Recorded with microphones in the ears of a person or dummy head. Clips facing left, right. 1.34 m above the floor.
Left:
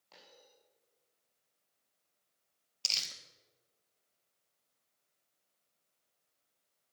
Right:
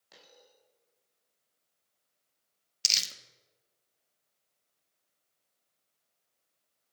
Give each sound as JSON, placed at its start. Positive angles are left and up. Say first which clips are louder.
{"t": 0.1, "sound": "a dropped coin", "louder": "right 2 dB", "side_deg": -20, "distance_m": 6.0}
{"t": 2.8, "sound": "crumpling", "louder": "right 4 dB", "side_deg": -25, "distance_m": 1.2}